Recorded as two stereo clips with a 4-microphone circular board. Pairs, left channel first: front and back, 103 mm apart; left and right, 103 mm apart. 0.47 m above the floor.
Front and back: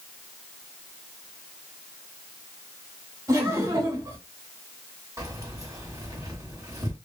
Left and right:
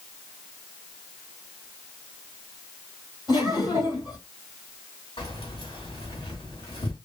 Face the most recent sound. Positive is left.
turn(degrees=125)